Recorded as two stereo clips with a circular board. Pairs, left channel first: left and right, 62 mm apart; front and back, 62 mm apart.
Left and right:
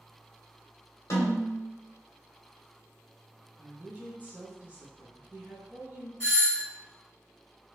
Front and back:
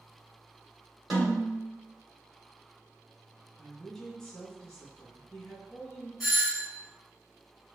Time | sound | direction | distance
1.1 | a snare drum | 95° left | 1.6 m
3.6 | a woman speaking | 70° right | 1.0 m
6.2 | a doorbell | 95° left | 1.7 m